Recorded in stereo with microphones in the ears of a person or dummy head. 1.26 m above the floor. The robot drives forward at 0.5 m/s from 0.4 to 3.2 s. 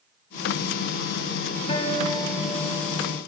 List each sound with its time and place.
1.7 s a guitar: 30° left (ahead or behind), 1.0 m; by 3.1 s 15° left (ahead or behind), 1.6 m